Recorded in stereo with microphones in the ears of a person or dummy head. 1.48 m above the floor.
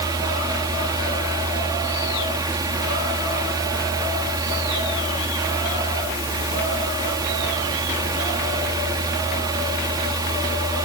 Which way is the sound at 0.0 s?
25° right (ahead or behind).